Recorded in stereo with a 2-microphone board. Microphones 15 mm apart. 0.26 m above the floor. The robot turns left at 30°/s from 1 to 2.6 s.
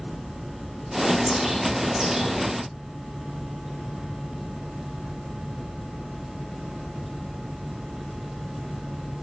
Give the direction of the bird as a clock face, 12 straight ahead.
1 o'clock.